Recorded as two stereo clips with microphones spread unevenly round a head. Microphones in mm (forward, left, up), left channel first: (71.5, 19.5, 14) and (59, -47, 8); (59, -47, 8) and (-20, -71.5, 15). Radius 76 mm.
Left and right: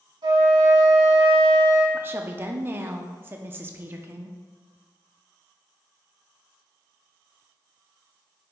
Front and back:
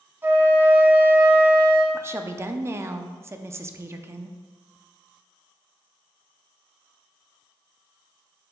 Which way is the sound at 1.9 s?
125° right.